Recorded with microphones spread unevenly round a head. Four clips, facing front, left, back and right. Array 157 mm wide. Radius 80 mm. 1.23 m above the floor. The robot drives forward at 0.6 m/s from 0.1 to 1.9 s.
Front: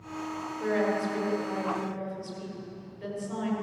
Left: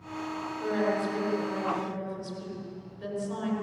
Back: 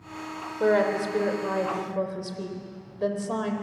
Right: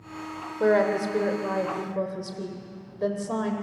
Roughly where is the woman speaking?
Behind right.